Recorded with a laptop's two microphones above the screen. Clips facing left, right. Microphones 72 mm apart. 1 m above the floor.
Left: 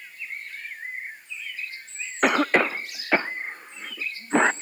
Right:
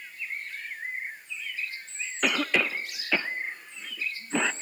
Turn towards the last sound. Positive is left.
turn(degrees=45)  # may be behind; listen again after turning